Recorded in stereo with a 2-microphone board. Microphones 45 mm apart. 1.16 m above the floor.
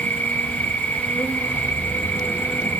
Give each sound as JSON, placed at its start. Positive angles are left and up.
{"t": 0.0, "sound": "an insect", "side_deg": 50, "distance_m": 1.0}